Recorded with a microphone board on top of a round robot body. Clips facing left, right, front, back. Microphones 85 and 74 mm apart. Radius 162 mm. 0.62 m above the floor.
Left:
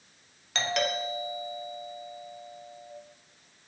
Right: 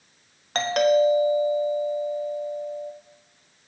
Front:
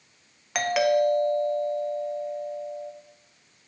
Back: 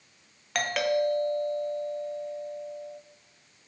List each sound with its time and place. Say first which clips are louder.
0.6 s a doorbell: right 11 dB, front 5 dB; 80° right, 1.5 m